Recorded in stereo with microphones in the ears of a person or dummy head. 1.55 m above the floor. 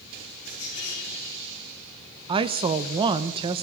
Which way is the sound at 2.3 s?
25° right (ahead or behind).